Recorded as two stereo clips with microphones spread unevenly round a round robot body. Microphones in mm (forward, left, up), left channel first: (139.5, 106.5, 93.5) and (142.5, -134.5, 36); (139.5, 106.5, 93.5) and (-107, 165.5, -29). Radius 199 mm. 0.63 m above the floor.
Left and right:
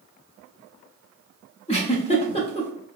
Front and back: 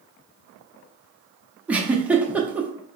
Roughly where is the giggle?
Behind.